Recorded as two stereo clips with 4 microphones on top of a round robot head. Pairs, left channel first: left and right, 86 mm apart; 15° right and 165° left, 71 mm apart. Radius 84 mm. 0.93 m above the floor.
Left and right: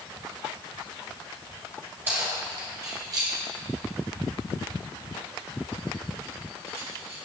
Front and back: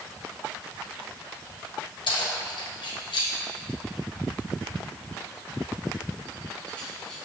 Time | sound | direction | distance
2.1 | keys jangling | 20° right | 2.5 m